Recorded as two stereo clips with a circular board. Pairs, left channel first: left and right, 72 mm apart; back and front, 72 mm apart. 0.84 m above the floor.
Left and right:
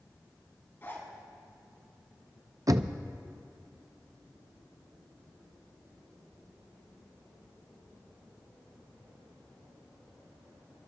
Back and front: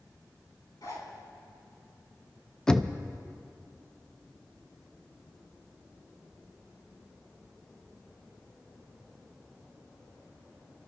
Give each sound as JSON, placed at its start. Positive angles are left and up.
{"t": 0.8, "sound": "a zipper", "azimuth_deg": 150, "distance_m": 3.5}
{"t": 2.7, "sound": "knocking", "azimuth_deg": -100, "distance_m": 0.5}